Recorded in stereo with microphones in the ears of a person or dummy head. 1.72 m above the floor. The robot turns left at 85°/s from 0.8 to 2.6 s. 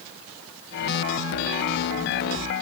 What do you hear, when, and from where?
Only background noise.